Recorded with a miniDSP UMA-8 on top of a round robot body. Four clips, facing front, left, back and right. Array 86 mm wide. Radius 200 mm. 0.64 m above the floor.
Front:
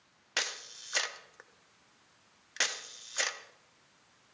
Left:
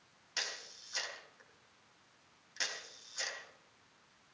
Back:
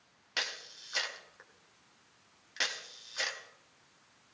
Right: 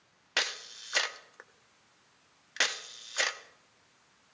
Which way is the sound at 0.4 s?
75° right.